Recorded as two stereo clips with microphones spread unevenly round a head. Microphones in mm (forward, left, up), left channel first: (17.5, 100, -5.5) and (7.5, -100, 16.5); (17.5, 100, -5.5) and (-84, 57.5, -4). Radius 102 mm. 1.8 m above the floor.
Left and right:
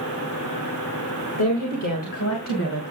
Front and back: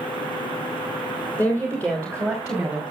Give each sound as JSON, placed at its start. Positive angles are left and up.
{"t": 1.4, "sound": "a woman speaking", "azimuth_deg": 95, "distance_m": 3.5}